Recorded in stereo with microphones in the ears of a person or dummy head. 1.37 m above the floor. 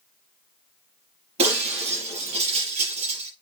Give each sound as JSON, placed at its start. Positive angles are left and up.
{"t": 1.4, "sound": "breaking glass", "side_deg": -40, "distance_m": 5.5}